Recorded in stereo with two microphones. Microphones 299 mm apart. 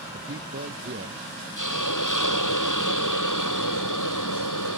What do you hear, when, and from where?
0.1 s a man speaking: 45° right (ahead or behind); by 1.2 s 40° right (ahead or behind)
1.6 s a hiss: 75° left (ahead or behind)